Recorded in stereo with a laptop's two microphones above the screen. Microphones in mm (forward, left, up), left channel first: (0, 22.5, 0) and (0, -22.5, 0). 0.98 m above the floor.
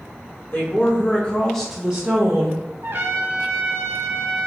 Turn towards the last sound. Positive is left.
turn(degrees=-55)  # may be behind; listen again after turning